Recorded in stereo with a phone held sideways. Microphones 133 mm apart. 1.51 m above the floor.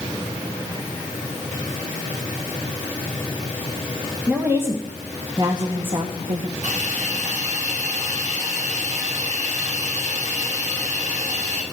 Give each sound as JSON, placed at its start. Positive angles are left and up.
{"t": 4.3, "sound": "a woman speaking", "side_deg": -10, "distance_m": 1.9}
{"t": 6.6, "sound": "a hiss", "side_deg": -80, "distance_m": 6.0}